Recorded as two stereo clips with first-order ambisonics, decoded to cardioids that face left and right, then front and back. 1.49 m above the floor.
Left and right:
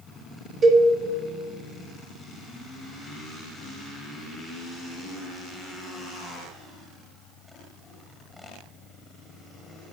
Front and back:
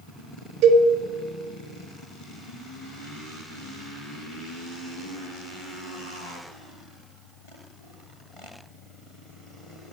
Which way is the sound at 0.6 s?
160° right.